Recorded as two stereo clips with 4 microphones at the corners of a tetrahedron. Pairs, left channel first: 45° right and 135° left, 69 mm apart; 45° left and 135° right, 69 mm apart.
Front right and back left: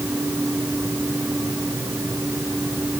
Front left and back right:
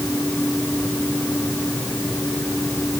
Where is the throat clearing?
No throat clearing in this recording.